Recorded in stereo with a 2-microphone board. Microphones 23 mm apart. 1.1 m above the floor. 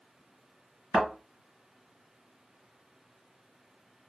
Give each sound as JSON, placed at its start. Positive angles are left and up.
{"t": 0.9, "sound": "a thud", "side_deg": -10, "distance_m": 2.0}